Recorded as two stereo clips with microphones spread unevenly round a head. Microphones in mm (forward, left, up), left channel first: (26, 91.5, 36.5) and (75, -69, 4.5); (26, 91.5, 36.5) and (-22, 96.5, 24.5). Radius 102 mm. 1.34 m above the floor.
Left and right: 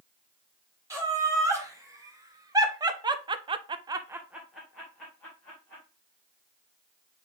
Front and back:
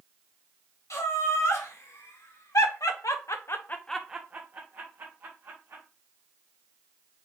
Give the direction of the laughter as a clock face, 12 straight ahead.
12 o'clock.